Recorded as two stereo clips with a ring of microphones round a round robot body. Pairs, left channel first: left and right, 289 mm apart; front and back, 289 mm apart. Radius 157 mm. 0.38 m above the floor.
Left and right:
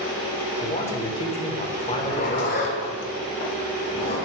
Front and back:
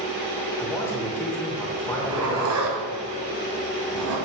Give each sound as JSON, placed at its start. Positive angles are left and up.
{"t": 0.6, "sound": "a man speaking", "azimuth_deg": 70, "distance_m": 1.2}
{"t": 1.9, "sound": "a zipper", "azimuth_deg": 150, "distance_m": 1.6}